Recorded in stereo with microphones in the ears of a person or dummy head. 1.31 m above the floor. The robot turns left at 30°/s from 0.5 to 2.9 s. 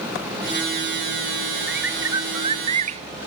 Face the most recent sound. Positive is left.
turn(degrees=-45)